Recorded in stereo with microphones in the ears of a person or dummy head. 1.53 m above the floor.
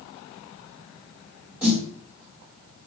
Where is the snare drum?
10° right (ahead or behind), 1.9 m.